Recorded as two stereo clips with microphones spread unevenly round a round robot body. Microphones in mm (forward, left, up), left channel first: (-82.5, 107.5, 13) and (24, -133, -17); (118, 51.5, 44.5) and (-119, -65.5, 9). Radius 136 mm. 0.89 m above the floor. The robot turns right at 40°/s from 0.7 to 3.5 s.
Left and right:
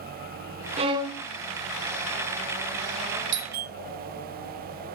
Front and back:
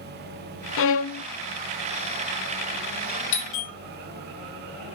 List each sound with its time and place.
0.8 s a violin: 5° left, 0.5 m; by 1.2 s 25° left, 0.5 m
3.3 s a doorbell: 25° right, 1.8 m; by 3.7 s 15° right, 1.8 m